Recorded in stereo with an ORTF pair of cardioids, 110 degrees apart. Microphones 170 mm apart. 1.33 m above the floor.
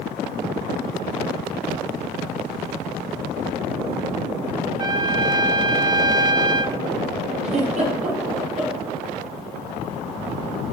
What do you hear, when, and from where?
4.8 s a trumpet: 25° right, 1.0 m
7.4 s a giggle: 45° right, 6 m